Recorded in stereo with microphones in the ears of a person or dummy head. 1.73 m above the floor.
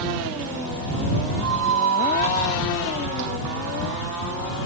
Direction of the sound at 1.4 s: 70° right (ahead or behind).